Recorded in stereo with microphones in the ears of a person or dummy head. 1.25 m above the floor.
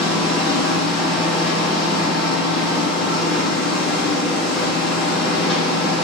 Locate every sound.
0.0 s a machine running: 5° left (ahead or behind), 1.5 m